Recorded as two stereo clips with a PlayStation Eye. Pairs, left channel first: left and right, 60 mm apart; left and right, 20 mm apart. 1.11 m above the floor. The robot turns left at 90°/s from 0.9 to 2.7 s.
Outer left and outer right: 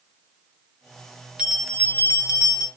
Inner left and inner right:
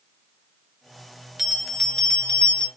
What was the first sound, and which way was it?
A bell, 160° right.